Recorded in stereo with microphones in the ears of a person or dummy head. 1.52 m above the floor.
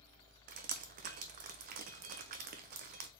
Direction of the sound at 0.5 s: 50° right (ahead or behind).